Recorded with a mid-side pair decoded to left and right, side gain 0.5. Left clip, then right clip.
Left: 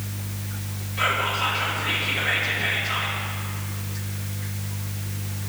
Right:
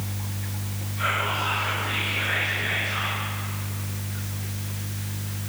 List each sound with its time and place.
1.0 s whispering: 55° left, 2.0 m